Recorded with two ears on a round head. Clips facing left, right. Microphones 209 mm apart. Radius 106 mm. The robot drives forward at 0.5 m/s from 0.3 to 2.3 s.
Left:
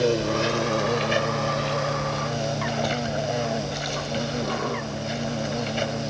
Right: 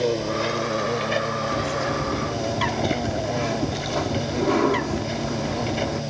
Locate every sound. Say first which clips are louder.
0.0 s an insect: left 1 dB; 10° left (ahead or behind); by 6.1 s 5° left (ahead or behind)
1.5 s a bird: right 1 dB; 65° right (ahead or behind); by 6.0 s 70° right (ahead or behind)